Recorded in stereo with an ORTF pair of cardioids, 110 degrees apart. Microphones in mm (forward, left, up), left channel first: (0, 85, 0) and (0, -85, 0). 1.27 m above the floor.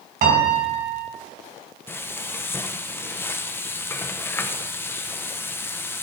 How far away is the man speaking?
No man speaking in this recording.